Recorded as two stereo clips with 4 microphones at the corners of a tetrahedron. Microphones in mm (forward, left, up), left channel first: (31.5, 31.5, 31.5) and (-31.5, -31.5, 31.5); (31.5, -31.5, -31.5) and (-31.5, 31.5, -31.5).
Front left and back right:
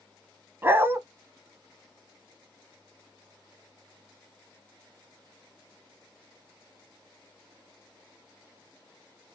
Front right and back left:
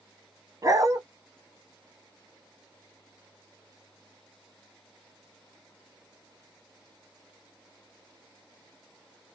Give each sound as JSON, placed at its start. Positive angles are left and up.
{"t": 0.6, "sound": "a dog barking", "azimuth_deg": 170, "distance_m": 0.8}